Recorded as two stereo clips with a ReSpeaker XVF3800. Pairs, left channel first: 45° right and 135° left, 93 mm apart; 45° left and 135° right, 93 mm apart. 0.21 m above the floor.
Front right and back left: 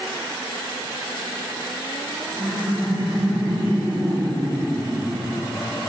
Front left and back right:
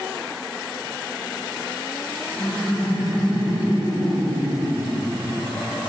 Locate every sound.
2.3 s laughter: 175° left, 1.5 m